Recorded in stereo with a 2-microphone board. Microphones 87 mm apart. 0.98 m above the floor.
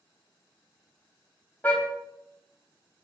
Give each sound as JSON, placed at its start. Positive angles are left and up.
{"t": 1.6, "sound": "a car horn", "side_deg": 20, "distance_m": 3.5}